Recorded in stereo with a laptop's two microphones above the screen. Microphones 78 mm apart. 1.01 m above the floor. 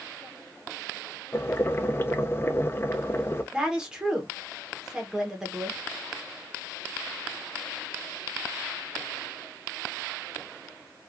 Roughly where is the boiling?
Left.